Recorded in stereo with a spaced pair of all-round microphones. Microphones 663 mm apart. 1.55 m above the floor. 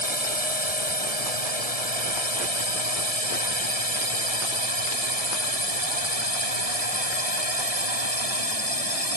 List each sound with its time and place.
0.0 s a drone: 65° left (ahead or behind); by 9.2 s 60° left (ahead or behind)